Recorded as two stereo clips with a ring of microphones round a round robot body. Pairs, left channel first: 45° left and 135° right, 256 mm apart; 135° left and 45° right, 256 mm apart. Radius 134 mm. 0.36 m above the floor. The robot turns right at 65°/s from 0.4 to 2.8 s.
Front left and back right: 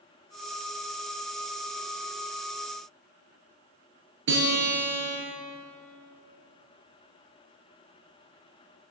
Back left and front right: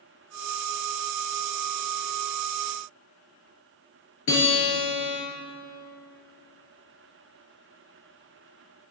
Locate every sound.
4.3 s a guitar: straight behind, 5 m